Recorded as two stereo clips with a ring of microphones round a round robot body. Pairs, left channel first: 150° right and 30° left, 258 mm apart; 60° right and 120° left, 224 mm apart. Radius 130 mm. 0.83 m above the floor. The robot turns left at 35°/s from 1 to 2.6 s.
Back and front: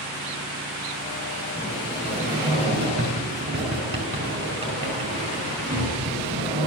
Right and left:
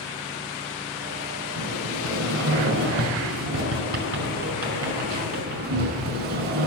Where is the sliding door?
135° left, 5 m; by 6.7 s 100° left, 5 m.